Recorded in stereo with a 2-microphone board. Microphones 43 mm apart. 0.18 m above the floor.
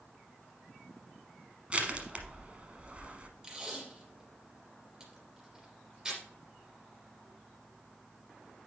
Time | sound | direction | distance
1.7 | crushing | 30° right (ahead or behind) | 1.1 m
3.4 | tape being pulled | 20° right (ahead or behind) | 3 m